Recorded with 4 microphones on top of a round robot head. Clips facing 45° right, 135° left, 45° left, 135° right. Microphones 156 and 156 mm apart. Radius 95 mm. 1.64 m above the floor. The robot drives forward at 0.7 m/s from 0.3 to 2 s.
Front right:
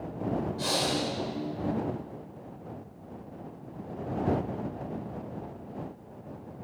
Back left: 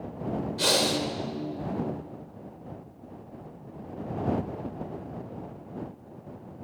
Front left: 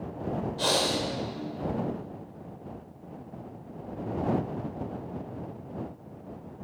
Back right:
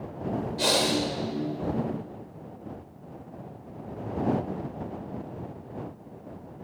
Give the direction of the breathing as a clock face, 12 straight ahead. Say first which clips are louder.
Back left 3 dB, back right 3 dB; 7 o'clock.